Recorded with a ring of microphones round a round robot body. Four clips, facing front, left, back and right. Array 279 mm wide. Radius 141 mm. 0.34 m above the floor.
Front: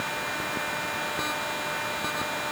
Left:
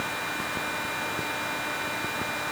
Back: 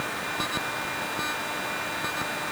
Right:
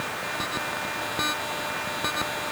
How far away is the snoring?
No snoring in this recording.